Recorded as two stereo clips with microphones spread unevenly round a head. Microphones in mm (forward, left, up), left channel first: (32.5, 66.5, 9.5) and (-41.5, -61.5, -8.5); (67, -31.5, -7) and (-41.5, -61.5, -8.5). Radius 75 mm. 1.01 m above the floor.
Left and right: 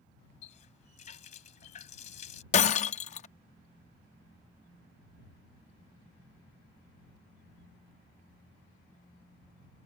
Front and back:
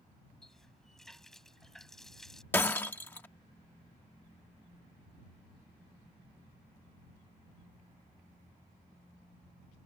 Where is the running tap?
105° left.